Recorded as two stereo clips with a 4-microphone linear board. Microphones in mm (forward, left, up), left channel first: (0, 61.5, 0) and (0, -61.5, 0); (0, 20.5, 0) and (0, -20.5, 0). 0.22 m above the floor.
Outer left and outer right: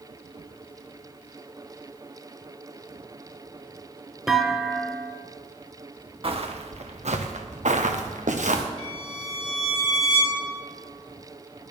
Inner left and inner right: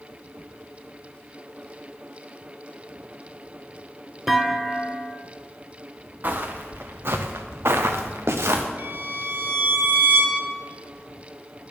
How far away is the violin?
About 3.5 m.